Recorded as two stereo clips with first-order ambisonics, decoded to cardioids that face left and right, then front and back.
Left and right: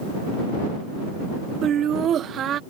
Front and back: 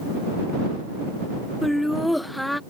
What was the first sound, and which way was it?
Laughter, 85° right.